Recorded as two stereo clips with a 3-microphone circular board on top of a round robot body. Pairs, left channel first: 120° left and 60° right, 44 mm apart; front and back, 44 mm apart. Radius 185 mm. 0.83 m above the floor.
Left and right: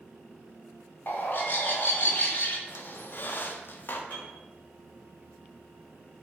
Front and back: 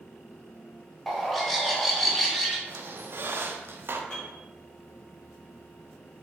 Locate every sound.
1.1 s a bird: 90° left, 1.1 m
2.7 s a squeak: 155° left, 0.6 m
4.1 s a piano: 75° left, 1.0 m